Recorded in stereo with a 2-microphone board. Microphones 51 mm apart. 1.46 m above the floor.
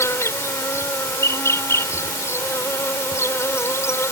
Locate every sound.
0.0 s an insect: 65° left (ahead or behind)